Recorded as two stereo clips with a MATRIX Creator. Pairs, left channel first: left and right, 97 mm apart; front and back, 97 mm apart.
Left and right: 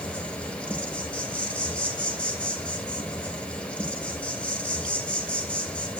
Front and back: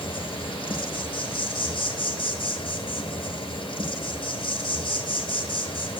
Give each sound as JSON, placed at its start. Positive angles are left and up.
{"t": 0.0, "sound": "an insect", "azimuth_deg": 10, "distance_m": 1.1}